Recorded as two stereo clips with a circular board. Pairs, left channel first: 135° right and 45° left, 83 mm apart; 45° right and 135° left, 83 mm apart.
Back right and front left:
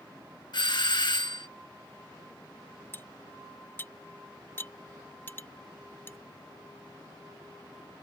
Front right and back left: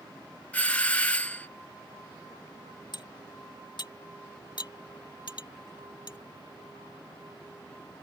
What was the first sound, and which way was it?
A doorbell, 115° right.